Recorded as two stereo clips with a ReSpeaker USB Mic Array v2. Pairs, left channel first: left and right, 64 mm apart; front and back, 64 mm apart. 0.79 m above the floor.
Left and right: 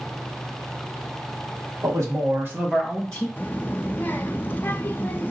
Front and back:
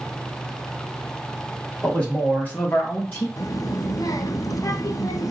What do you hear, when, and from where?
1.8 s a man speaking: 70° right, 1.8 m; by 3.3 s 40° left, 1.0 m
3.4 s a child speaking: 30° left, 0.6 m